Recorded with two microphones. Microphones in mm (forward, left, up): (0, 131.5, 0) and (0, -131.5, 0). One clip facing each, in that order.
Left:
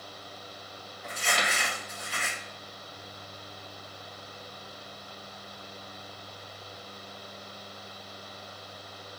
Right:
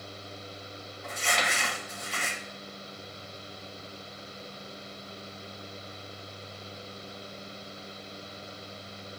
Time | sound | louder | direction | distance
1.0 | crumpling | even | centre (ahead or behind) | 1.8 m